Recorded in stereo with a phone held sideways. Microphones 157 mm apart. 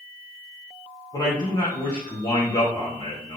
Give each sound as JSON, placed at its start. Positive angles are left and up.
{"t": 1.1, "sound": "a man speaking", "side_deg": 25, "distance_m": 1.0}